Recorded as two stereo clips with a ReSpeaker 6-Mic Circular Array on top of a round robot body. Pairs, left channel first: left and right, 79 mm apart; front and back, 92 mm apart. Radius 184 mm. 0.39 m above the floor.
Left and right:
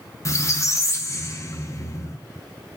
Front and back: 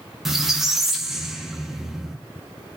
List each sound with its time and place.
0.2 s a squeak: 95° left, 0.7 m